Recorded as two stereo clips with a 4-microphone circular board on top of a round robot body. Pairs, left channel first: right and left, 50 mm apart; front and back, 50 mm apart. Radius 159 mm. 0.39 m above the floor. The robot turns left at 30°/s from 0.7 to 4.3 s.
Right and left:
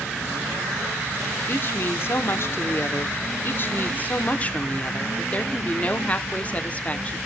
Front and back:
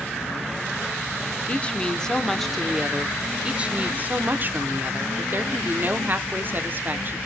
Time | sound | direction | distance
1.5 | a woman speaking | 60° right | 1.5 m